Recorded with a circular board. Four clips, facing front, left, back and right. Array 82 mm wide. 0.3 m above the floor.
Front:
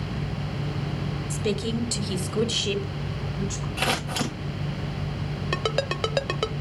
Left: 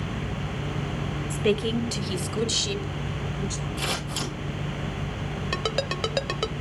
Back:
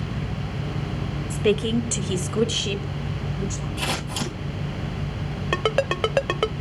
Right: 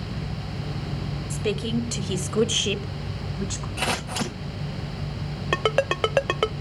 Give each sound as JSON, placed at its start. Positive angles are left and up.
{"t": 1.3, "sound": "a woman speaking", "azimuth_deg": 150, "distance_m": 1.1}
{"t": 3.8, "sound": "scissors", "azimuth_deg": -40, "distance_m": 8.0}
{"t": 5.5, "sound": "a ringtone", "azimuth_deg": -120, "distance_m": 0.6}